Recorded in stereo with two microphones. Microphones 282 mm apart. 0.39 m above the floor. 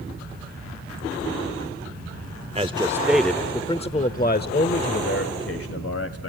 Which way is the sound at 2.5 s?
20° right (ahead or behind).